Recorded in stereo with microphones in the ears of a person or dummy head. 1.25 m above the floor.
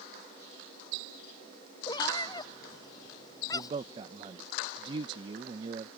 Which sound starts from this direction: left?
A cat meowing, at 1.9 s.